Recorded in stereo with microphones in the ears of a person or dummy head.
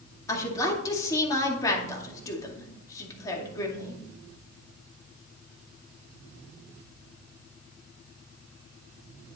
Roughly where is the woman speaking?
Centre.